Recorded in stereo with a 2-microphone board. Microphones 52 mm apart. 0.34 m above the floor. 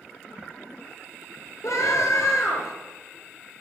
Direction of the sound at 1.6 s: 70° left (ahead or behind).